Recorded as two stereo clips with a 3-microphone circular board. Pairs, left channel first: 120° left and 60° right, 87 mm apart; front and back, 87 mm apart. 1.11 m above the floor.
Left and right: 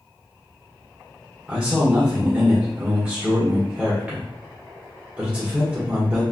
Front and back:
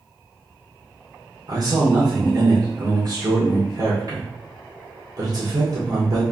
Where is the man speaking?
135° right, 1.2 m.